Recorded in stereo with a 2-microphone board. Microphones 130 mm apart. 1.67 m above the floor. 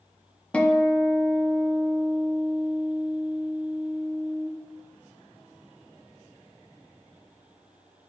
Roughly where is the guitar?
Centre.